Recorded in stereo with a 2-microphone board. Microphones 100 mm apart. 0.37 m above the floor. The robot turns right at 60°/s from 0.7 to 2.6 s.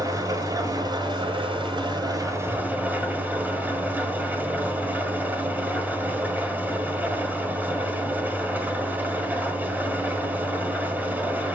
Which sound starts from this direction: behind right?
An engine running, at 0.0 s.